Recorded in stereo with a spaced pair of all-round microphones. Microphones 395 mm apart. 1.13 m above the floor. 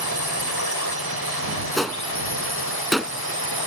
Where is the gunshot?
Centre (ahead or behind).